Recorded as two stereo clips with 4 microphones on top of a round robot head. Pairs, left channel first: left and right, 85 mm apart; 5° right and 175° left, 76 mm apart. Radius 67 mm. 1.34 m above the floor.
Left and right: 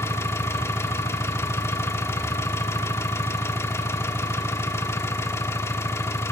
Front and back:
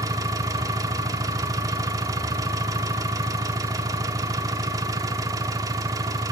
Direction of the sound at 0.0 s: 145° left.